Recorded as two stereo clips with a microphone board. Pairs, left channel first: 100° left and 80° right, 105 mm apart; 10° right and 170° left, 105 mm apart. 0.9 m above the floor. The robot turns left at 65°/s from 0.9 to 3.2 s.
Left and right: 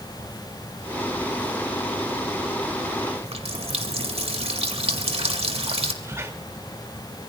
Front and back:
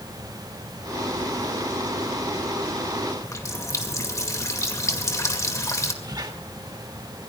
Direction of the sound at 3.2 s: 70° right.